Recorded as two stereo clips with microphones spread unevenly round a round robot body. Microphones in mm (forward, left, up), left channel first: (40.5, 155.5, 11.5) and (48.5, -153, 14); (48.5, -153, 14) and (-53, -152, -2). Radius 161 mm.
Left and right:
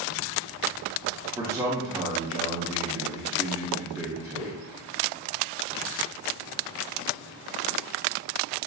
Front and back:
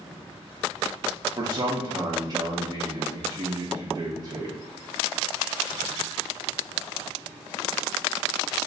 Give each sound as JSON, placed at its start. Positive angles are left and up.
{"t": 1.4, "sound": "a man speaking", "azimuth_deg": -170, "distance_m": 0.6}